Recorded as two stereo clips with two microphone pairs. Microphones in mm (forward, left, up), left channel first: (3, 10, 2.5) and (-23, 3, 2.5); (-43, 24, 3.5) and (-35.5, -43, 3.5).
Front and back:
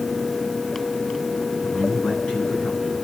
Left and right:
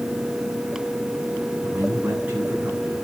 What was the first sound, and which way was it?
A man speaking, 20° right.